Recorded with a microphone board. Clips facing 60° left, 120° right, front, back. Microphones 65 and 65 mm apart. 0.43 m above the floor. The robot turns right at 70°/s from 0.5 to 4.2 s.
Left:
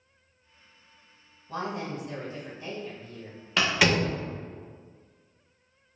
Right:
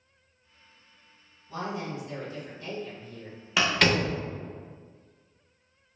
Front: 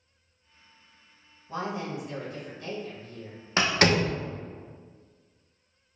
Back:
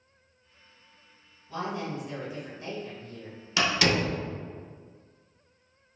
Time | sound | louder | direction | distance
1.5 | a woman speaking | left 1 dB, even | 45° left | 1.5 m
3.6 | a door slam | even, front 2 dB | 35° right | 0.6 m